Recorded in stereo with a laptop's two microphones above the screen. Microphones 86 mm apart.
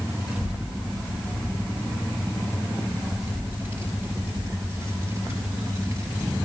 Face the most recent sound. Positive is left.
turn(degrees=-30)  # may be behind; listen again after turning